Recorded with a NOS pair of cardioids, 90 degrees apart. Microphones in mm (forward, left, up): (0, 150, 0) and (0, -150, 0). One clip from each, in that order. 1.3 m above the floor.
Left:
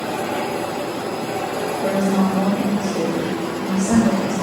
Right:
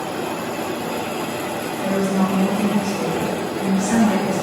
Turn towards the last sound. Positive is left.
turn(degrees=40)